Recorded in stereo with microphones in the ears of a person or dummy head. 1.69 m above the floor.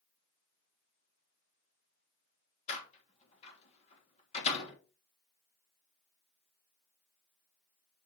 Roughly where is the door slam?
Left.